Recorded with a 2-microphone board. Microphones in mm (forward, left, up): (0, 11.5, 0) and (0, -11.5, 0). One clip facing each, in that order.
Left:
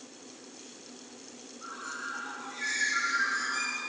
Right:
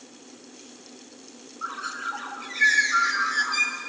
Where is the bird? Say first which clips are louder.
Right 8 dB; 55° right (ahead or behind), 3.5 m.